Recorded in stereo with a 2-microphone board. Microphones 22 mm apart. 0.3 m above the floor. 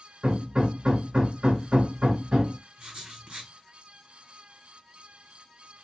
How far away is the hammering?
About 1.8 m.